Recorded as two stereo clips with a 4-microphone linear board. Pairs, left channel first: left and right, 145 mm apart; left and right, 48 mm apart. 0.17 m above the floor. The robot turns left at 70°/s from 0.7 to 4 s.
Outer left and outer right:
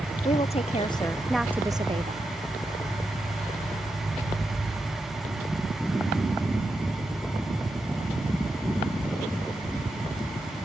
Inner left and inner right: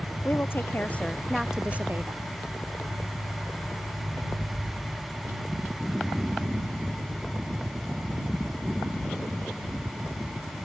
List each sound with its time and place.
0.2 s a woman speaking: 45° left; by 2.3 s 65° right